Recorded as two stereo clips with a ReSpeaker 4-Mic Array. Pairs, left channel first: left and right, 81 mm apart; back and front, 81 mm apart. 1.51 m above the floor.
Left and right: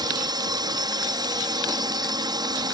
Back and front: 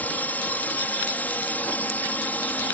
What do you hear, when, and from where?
0.0 s a drone: 110° right